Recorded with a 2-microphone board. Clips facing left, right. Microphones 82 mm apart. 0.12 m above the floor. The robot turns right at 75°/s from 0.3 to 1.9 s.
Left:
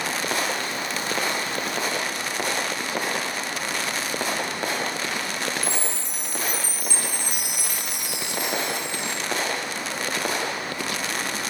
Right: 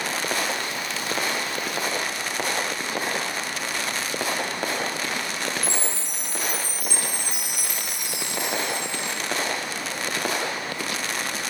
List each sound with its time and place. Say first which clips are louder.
5.6 s a chime: even; 25° right (ahead or behind), 3.5 m